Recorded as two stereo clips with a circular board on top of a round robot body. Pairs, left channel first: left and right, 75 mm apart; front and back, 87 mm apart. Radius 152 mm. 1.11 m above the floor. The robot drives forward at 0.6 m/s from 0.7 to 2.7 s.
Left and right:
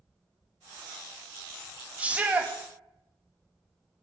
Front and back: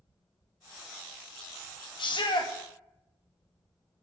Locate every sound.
2.0 s a shout: 20° right, 2.5 m